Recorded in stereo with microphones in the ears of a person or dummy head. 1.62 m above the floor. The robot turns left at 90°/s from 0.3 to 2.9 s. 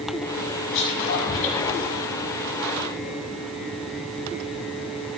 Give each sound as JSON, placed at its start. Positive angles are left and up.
{"t": 0.7, "sound": "whispering", "side_deg": 65, "distance_m": 3.0}